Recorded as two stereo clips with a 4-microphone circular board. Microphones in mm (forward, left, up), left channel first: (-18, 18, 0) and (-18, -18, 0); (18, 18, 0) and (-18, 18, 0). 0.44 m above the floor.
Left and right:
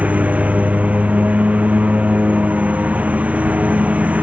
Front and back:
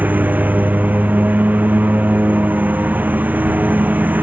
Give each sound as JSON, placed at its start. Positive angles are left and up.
{"t": 0.0, "sound": "a lawn mower", "azimuth_deg": -140}